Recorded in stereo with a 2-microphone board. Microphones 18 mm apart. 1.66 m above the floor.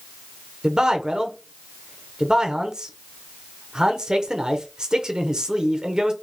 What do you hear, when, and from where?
0.6 s a man speaking: 40° right (ahead or behind), 0.7 m